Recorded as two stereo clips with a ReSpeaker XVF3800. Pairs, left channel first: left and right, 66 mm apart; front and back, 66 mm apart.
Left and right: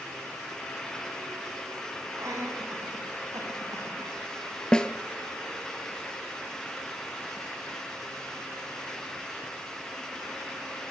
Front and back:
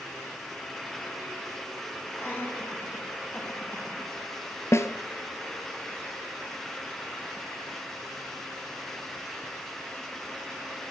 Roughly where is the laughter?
Ahead right.